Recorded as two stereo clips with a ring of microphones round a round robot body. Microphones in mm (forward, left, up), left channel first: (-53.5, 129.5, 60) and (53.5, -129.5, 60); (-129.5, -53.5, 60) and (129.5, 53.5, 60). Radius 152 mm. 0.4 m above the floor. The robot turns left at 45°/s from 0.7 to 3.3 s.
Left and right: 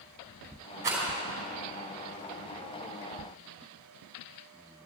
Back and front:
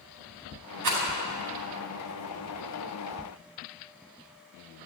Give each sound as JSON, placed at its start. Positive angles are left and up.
{"t": 0.8, "sound": "a rattle", "azimuth_deg": 15, "distance_m": 4.5}